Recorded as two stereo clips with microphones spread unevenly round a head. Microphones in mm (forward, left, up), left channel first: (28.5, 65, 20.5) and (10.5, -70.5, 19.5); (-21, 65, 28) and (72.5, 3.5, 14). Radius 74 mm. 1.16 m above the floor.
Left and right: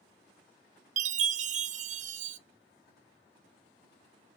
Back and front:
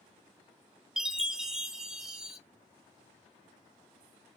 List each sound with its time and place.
1.0 s a chime: 115° right, 0.7 m